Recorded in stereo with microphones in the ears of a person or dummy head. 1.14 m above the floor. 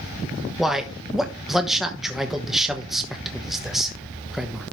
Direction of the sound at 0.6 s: Centre (ahead or behind).